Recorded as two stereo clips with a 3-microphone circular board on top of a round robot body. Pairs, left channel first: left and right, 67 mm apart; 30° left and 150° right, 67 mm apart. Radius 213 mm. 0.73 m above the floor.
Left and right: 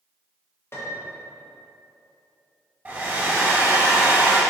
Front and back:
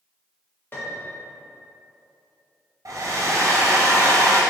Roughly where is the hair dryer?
Behind right.